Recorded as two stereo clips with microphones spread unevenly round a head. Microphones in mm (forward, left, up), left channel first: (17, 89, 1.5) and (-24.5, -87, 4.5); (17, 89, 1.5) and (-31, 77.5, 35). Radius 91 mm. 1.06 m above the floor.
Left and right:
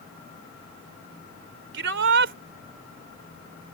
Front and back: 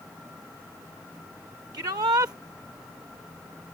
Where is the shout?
130° right.